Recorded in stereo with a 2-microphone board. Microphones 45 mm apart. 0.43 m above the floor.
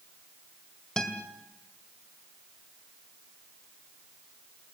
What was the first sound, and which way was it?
A guitar, 15° left (ahead or behind).